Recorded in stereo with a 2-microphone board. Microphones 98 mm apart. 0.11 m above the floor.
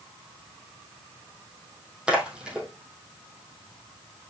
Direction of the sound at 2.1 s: 10° right (ahead or behind).